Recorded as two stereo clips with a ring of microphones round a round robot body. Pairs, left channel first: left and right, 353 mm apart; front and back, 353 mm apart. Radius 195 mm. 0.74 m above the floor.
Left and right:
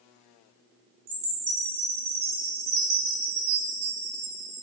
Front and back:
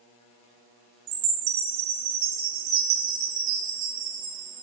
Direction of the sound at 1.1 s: 155° right.